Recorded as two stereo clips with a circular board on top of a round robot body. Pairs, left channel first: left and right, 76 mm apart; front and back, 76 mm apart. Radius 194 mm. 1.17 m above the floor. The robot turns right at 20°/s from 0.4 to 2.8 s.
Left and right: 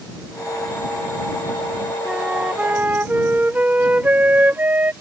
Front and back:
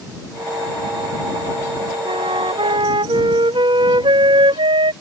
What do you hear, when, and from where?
2.0 s a flute: 175° right; by 4.9 s 160° right